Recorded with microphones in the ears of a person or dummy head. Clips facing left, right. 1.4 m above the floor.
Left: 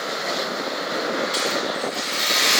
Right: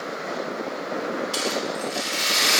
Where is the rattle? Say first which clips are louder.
Left 1 dB; 30° right (ahead or behind), 1.3 m.